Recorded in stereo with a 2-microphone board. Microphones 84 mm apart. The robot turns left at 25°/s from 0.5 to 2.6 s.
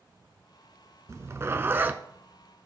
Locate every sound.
1.1 s a zipper: 40° right (ahead or behind), 0.6 m; by 2.0 s 20° right (ahead or behind), 0.6 m